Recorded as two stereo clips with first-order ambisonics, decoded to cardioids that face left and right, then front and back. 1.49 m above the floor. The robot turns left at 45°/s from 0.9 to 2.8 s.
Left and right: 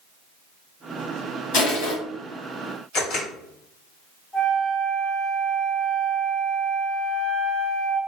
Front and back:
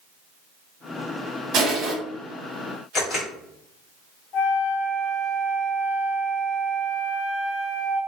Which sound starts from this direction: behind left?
Crushing, at 1.5 s.